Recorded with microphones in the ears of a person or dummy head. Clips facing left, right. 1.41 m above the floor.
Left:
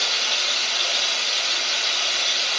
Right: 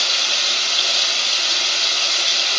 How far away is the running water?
About 0.9 m.